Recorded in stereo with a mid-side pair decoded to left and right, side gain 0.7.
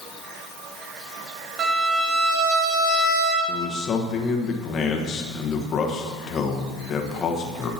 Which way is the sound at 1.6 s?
50° right.